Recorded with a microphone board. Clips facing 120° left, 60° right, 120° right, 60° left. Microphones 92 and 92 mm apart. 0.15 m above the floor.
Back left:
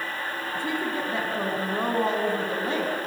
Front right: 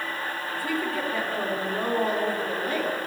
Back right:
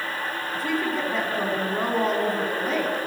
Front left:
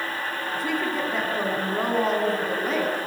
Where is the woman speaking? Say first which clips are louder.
Even, back right 1 dB; 150° left, 1.4 m.